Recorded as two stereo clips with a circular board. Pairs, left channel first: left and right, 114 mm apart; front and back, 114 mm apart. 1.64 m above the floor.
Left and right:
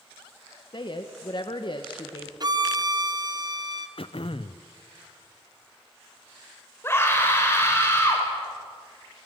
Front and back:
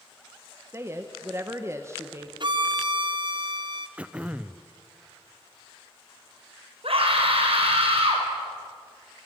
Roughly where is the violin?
Behind right.